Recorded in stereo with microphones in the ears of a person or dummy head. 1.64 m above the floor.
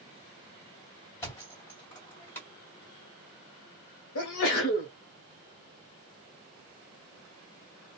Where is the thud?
15° left (ahead or behind), 1.9 m.